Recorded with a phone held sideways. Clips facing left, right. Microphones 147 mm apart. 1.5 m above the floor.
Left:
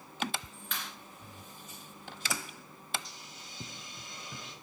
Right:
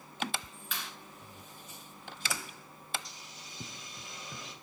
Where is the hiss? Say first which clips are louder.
Left 1 dB; centre (ahead or behind), 5 m.